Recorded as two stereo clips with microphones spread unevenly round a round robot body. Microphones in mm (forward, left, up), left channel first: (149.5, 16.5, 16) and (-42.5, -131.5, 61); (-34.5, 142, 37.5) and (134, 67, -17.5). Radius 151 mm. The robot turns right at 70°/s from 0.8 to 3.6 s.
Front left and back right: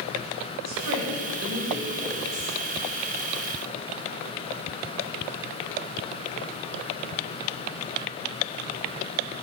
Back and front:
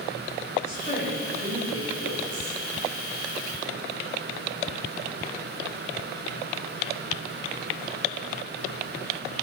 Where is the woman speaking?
140° right, 4 m; by 2.6 s 15° right, 4 m.